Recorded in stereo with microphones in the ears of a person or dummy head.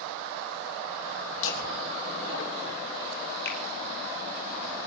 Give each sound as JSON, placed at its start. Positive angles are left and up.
{"t": 1.4, "sound": "laughter", "side_deg": 80, "distance_m": 3.0}
{"t": 3.5, "sound": "a finger snap", "side_deg": 60, "distance_m": 2.0}